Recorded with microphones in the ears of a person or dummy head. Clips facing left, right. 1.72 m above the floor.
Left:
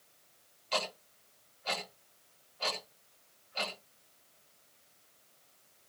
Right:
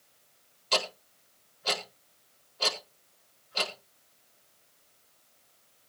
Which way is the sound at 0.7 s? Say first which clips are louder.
Right 4 dB; 60° right (ahead or behind).